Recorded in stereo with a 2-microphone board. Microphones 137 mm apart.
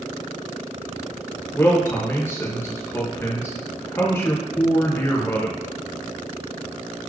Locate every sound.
1.5 s a man speaking: 20° left (ahead or behind), 0.7 m